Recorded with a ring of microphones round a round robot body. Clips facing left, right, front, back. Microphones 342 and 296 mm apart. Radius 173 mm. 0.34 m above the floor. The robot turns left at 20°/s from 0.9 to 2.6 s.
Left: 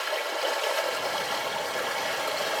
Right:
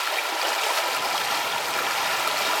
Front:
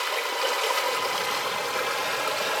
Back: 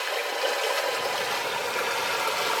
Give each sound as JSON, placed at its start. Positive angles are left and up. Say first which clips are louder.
{"t": 0.0, "sound": "running water", "louder": "left 1 dB, back 1 dB", "azimuth_deg": -70, "distance_m": 0.8}